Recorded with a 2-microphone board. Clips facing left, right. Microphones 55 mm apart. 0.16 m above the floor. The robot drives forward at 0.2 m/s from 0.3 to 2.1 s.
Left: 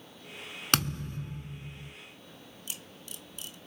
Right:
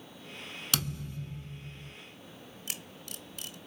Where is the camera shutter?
65° right (ahead or behind), 0.6 m.